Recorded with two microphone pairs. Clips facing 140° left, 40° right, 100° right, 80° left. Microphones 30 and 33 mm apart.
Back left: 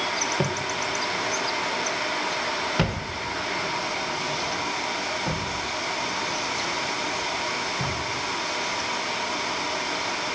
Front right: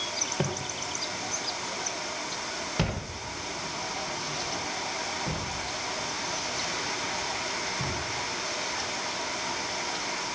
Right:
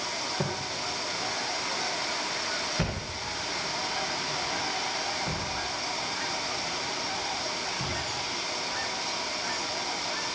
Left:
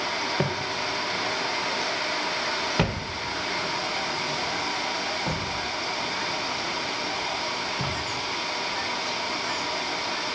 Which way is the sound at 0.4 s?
60° left.